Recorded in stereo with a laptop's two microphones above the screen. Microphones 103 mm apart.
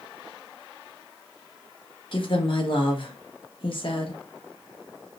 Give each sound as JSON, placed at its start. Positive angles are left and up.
{"t": 2.1, "sound": "a woman speaking", "side_deg": 55, "distance_m": 1.0}